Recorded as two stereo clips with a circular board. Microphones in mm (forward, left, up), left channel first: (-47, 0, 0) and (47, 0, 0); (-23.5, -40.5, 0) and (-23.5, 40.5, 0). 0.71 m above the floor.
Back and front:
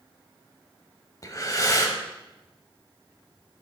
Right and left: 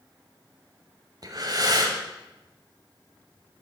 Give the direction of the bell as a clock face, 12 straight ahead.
I don't hear a bell.